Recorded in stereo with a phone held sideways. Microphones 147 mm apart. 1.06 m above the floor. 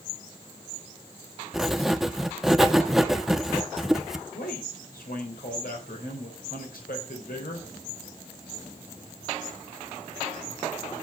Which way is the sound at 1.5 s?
Centre (ahead or behind).